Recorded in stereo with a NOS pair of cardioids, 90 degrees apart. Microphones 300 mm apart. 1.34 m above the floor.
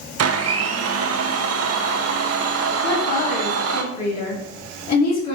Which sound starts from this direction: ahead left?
A woman speaking, at 2.8 s.